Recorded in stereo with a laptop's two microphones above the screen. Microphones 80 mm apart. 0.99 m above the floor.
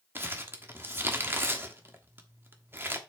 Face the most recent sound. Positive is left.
turn(degrees=-25)  # may be behind; listen again after turning